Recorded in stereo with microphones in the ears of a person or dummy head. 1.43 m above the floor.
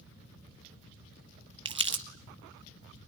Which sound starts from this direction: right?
Crumpling, at 1.6 s.